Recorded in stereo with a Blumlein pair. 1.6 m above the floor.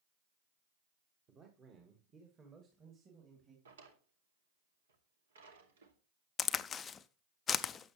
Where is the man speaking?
25° right, 1.8 m.